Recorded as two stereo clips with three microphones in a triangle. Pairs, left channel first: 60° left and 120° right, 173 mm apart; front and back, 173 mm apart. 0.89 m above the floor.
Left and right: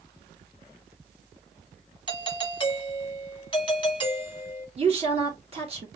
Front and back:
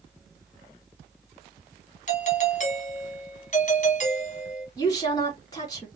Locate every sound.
2.1 s a doorbell: 10° left, 1.2 m
4.8 s a woman speaking: 65° right, 2.5 m